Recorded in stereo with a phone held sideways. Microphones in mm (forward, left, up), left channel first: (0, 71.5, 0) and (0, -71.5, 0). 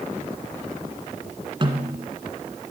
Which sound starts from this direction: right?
A snare drum, at 1.6 s.